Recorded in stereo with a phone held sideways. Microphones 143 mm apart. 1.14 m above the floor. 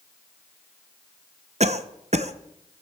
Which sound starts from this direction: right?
A cough, at 1.6 s.